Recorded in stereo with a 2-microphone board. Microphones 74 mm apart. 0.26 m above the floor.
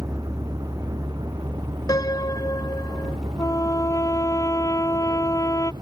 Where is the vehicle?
55° right (ahead or behind); by 5.8 s 90° right.